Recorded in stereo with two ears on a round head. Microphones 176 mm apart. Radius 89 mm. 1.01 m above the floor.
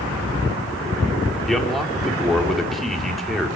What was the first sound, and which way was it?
A man speaking, centre (ahead or behind).